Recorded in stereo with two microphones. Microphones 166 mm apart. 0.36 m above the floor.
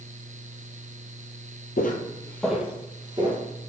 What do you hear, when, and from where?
1.8 s footsteps: 65° left (ahead or behind), 0.6 m; by 3.4 s 30° right (ahead or behind), 1.4 m